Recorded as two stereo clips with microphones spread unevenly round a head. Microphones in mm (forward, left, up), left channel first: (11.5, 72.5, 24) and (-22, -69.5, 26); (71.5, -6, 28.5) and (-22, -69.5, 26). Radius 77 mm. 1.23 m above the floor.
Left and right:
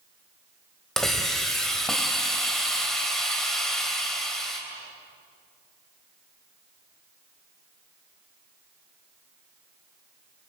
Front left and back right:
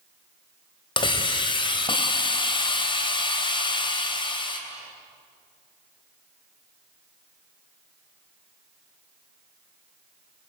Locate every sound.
1.0 s a hiss: 10° right, 3 m